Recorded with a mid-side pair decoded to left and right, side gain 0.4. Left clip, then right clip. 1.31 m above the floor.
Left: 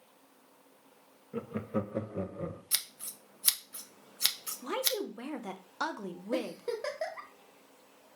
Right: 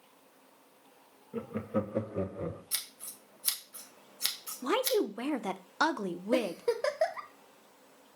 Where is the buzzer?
No buzzer in this recording.